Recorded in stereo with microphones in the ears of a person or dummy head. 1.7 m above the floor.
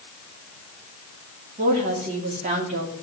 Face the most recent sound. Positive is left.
turn(degrees=-50)  # may be behind; listen again after turning